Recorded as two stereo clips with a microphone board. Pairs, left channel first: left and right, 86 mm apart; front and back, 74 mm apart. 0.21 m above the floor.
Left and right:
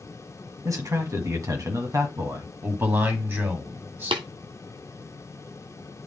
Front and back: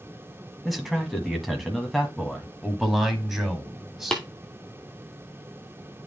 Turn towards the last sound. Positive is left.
turn(degrees=-80)